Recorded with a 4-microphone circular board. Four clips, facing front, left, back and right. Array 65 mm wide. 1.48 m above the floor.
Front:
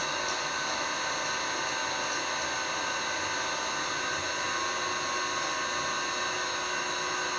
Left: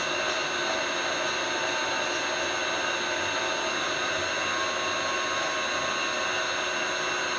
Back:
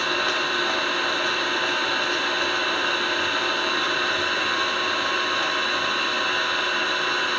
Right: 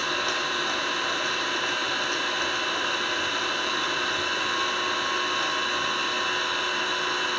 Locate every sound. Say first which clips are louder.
0.0 s an engine running: right 1 dB, back 8 dB; 175° right, 2.5 m